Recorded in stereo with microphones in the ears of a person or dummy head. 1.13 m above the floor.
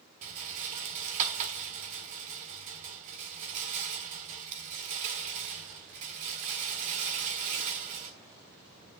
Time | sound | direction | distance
0.2 | a rattle | 40° right (ahead or behind) | 1.7 m